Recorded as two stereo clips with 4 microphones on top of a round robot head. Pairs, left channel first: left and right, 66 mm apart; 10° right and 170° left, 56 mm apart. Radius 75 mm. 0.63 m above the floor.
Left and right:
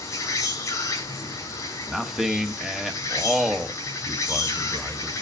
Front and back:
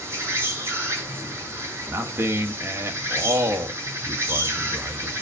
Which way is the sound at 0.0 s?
130° left.